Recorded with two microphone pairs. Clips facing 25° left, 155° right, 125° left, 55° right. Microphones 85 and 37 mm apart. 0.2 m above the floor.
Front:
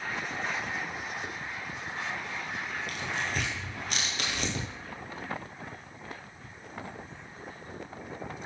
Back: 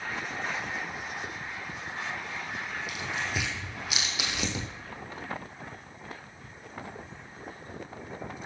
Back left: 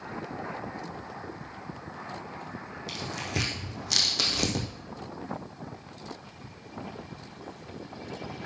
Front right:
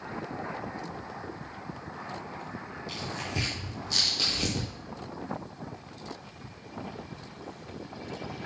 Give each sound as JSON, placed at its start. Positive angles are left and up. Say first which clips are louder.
{"t": 2.9, "sound": "tearing paper", "louder": "even, back left 2 dB", "azimuth_deg": 120, "distance_m": 2.0}